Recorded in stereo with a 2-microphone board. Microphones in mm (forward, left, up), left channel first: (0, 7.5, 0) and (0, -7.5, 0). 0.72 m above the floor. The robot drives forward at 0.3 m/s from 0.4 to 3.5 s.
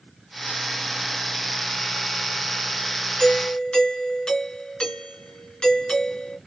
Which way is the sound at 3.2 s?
65° left (ahead or behind).